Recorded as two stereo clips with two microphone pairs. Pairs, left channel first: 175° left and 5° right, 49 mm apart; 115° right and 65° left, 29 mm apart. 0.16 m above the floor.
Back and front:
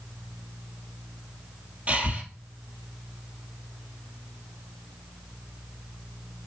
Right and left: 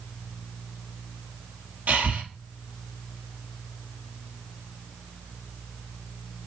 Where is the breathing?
55° left, 1.2 m.